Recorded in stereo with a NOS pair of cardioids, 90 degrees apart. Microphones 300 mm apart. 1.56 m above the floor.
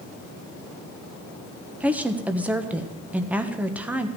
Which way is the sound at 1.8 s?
5° right.